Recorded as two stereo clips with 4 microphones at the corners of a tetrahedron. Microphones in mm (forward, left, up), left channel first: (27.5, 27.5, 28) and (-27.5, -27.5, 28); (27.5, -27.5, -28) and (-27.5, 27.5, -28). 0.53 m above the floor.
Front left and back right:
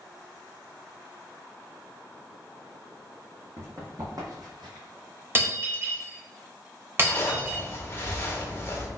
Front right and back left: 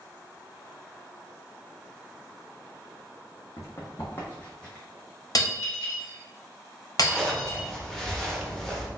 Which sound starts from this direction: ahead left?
A zipper, at 7.0 s.